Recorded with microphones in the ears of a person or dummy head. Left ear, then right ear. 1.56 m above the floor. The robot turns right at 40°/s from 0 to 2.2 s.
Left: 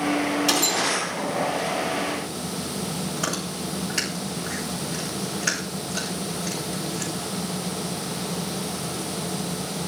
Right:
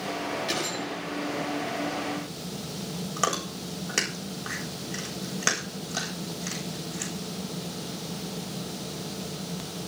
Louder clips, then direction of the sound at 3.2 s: Right 3 dB; 55° right (ahead or behind).